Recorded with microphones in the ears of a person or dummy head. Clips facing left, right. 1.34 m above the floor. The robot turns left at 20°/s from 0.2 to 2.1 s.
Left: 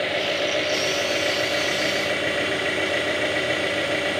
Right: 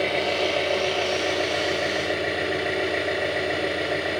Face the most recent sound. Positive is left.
turn(degrees=135)